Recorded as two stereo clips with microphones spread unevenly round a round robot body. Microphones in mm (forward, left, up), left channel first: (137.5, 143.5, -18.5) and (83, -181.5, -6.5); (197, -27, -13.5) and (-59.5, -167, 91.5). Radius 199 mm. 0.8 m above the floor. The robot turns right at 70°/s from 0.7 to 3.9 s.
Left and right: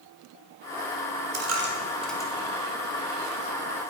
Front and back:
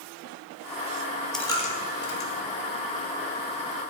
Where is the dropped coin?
60° right, 1.7 m; by 2.3 s 5° left, 1.7 m.